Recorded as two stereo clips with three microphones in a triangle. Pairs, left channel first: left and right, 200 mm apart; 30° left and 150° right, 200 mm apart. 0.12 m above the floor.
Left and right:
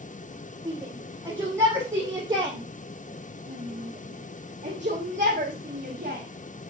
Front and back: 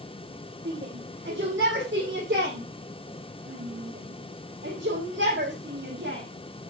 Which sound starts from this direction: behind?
A shout, at 0.7 s.